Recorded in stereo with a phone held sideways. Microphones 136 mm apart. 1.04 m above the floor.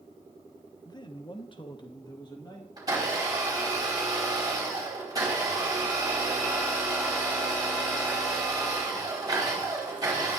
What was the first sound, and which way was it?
A man speaking, 30° left (ahead or behind).